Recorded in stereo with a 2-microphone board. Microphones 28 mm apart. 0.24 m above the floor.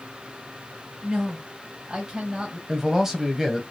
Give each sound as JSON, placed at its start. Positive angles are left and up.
{"t": 1.0, "sound": "a woman speaking", "side_deg": -20, "distance_m": 1.5}
{"t": 2.7, "sound": "a man speaking", "side_deg": -15, "distance_m": 1.0}